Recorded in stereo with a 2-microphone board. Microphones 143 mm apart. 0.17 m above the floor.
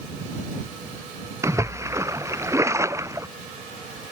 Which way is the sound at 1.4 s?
20° right (ahead or behind).